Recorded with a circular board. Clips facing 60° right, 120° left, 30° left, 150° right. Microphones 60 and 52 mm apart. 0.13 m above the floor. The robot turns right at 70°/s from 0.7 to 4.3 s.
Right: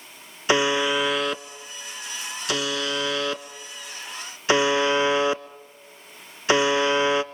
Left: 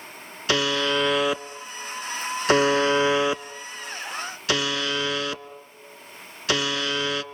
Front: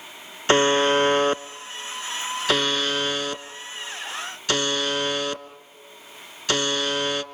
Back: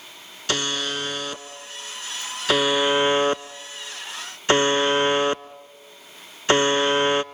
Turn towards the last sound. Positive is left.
turn(degrees=-110)